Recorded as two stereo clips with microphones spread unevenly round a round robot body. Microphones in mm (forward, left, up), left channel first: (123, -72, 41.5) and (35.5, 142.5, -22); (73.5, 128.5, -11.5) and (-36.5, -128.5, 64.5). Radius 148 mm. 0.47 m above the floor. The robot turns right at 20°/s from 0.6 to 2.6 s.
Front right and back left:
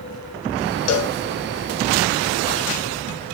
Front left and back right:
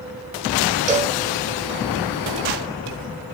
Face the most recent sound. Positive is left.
turn(degrees=-10)